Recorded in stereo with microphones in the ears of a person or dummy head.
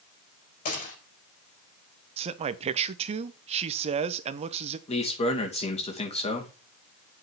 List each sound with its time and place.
0.7 s a gunshot: 45° left (ahead or behind), 6 m
2.2 s a man speaking: 35° right (ahead or behind), 0.8 m
4.9 s a man speaking: 35° left (ahead or behind), 2.5 m